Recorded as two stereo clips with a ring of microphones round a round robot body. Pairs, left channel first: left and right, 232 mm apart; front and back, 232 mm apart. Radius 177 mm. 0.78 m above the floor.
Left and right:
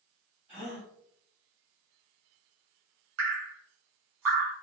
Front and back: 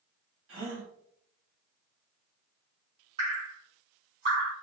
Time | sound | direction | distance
0.5 | a gasp | 155° right | 1.3 m
3.2 | dripping | 110° right | 0.9 m